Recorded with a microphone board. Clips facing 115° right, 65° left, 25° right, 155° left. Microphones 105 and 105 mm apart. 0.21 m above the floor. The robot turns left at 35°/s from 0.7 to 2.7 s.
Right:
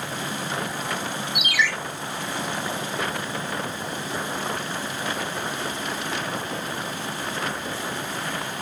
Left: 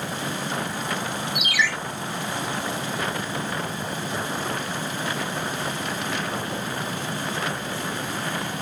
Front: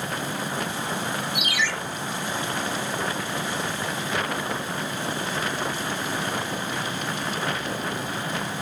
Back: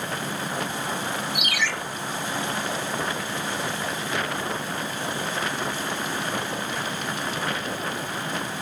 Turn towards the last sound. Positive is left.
turn(degrees=120)